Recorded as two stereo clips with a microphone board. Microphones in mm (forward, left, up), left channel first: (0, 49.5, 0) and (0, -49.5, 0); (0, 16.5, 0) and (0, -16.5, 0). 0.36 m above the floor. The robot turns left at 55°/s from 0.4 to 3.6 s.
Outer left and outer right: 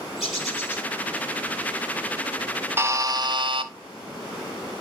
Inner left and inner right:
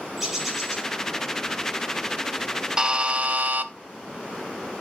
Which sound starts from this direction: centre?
A bird, at 0.2 s.